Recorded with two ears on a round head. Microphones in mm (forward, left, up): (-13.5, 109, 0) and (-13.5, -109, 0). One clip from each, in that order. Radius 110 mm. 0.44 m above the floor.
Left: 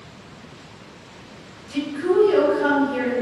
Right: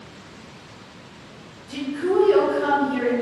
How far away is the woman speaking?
About 1.6 m.